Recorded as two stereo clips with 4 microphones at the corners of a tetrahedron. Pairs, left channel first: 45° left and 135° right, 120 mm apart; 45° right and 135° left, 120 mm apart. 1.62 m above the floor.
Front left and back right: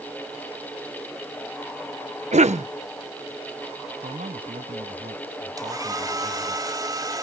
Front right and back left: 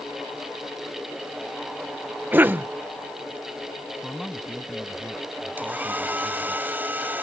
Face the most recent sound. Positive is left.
turn(degrees=-160)